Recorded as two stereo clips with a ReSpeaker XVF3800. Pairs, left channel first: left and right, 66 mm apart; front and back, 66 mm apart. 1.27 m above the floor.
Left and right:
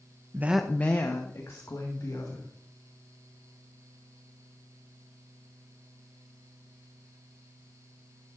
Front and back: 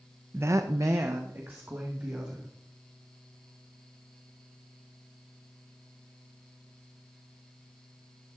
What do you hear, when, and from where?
0.3 s a woman speaking: 130° right, 0.6 m; by 2.5 s 125° left, 3 m